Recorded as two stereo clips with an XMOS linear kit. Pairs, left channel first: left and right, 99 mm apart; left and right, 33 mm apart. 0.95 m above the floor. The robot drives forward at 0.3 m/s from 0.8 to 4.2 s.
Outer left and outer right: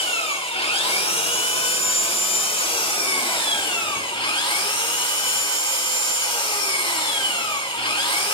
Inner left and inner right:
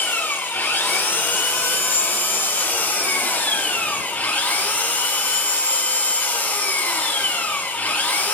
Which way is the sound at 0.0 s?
80° left.